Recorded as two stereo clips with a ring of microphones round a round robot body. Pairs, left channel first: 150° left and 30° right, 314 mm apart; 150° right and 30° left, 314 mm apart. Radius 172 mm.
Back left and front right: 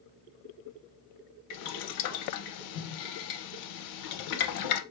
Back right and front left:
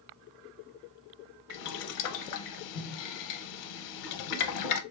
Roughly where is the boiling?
Behind.